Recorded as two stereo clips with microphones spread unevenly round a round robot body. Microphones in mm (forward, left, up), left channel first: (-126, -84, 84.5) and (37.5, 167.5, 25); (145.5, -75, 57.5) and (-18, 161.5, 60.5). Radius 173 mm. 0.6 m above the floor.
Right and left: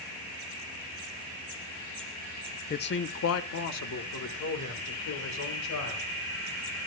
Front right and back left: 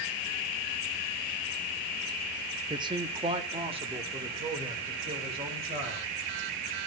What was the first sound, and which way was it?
A man speaking, straight behind.